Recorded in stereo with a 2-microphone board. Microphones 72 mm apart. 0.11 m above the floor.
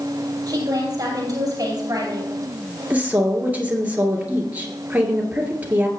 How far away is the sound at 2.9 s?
About 2.5 m.